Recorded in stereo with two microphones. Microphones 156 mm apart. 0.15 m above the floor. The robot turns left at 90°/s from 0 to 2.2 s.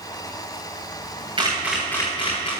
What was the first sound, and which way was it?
A camera shutter, 35° right (ahead or behind).